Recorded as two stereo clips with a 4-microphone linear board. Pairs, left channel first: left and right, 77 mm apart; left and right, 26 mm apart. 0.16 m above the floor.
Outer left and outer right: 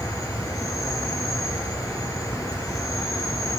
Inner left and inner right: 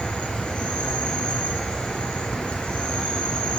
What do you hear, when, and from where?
0.0 s an insect: 45° left (ahead or behind), 3 m